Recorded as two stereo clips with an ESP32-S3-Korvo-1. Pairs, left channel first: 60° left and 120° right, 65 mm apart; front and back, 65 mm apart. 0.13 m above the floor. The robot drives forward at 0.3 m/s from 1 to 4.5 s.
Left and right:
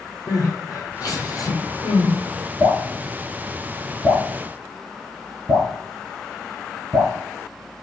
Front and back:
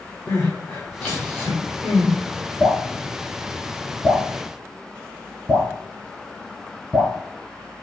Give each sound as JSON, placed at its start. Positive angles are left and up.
{"t": 0.3, "sound": "crying", "azimuth_deg": 60, "distance_m": 1.4}
{"t": 2.6, "sound": "dripping", "azimuth_deg": -50, "distance_m": 1.7}